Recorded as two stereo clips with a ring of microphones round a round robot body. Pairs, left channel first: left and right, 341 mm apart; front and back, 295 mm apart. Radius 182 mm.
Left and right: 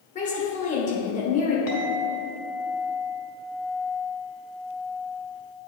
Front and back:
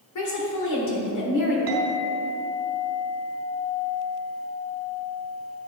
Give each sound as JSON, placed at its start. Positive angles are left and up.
{"t": 0.1, "sound": "a woman speaking", "azimuth_deg": 20, "distance_m": 1.9}
{"t": 1.7, "sound": "a clink", "azimuth_deg": 135, "distance_m": 1.9}